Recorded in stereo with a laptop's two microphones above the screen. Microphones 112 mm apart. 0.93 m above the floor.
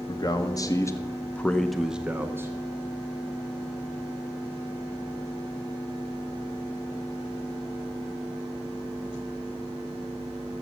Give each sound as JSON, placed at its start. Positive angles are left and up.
{"t": 0.1, "sound": "a man speaking", "side_deg": 40, "distance_m": 1.0}